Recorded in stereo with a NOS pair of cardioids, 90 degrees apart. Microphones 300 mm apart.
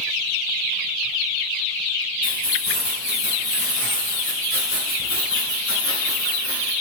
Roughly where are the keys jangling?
Ahead left.